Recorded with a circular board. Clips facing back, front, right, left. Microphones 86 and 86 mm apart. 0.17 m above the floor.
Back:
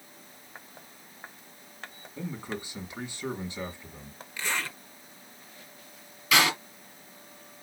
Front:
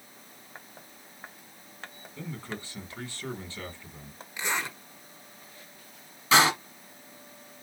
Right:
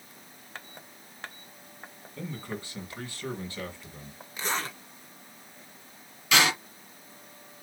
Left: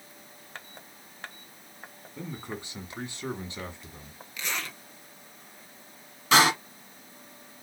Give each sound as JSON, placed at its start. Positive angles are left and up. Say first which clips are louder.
{"t": 2.2, "sound": "a man speaking", "louder": "back 3 dB, right 1 dB", "azimuth_deg": 130, "distance_m": 1.5}
{"t": 4.4, "sound": "a zipper", "louder": "front 1 dB, right 4 dB", "azimuth_deg": -60, "distance_m": 1.2}
{"t": 6.3, "sound": "a door slam", "louder": "front 3 dB, left 4 dB", "azimuth_deg": 50, "distance_m": 1.5}